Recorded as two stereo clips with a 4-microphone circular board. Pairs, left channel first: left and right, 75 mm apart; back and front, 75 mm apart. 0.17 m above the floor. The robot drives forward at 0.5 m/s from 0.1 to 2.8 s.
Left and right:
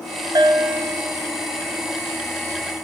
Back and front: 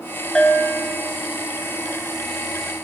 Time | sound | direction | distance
0.3 | a bell | 100° right | 0.7 m